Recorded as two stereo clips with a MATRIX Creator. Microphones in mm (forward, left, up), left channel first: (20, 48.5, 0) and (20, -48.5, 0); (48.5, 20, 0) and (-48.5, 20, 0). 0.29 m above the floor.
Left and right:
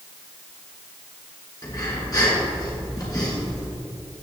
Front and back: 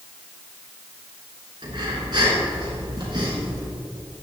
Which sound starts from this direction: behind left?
Breathing, at 1.6 s.